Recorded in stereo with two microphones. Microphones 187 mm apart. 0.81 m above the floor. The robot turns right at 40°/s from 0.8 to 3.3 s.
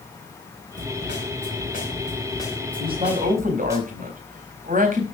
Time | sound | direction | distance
0.8 | a snare drum | 95° left | 4 m
2.8 | a man speaking | 25° right (ahead or behind) | 4 m